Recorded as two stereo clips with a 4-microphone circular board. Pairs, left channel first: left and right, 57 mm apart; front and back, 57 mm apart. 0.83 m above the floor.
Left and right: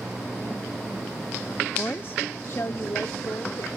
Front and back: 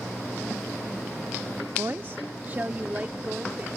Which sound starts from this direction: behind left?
A woman speaking, at 1.8 s.